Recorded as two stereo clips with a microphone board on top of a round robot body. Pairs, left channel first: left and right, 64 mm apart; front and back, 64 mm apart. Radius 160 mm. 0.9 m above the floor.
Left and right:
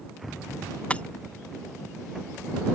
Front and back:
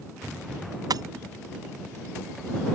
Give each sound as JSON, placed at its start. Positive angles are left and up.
{"t": 0.9, "sound": "breaking glass", "azimuth_deg": 160}